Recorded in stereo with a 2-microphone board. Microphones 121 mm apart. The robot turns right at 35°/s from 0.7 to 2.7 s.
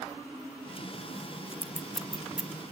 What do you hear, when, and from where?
1.6 s scissors: 15° left (ahead or behind), 1.3 m; by 2.5 s 15° right (ahead or behind), 1.3 m